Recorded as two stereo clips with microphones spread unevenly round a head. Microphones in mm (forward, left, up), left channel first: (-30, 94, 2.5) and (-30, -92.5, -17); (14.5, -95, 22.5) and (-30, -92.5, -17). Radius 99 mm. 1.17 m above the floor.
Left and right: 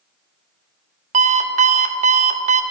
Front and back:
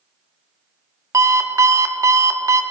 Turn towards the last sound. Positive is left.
turn(degrees=-145)